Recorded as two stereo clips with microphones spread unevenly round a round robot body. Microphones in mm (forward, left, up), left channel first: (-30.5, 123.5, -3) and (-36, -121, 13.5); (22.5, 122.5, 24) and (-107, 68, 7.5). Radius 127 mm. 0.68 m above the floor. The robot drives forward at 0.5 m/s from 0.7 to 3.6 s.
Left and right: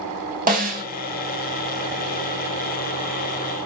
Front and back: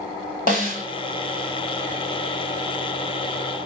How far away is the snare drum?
About 2 m.